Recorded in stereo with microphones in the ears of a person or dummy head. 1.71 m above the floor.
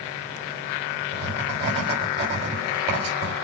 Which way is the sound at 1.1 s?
35° right (ahead or behind).